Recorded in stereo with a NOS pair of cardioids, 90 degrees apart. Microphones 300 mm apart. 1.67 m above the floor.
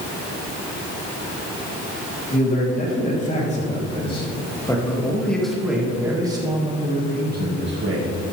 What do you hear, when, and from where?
2.3 s a man speaking: 30° left, 4.5 m; by 8.1 s 45° right, 2.5 m